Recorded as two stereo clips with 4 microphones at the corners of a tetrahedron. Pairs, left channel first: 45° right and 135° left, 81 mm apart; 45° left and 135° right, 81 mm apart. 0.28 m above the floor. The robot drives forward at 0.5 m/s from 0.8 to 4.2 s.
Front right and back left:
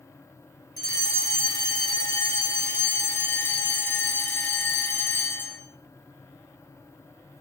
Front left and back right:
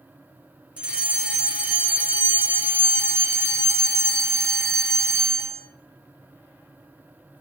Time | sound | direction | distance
0.8 | a fire alarm | 60° right | 3.5 m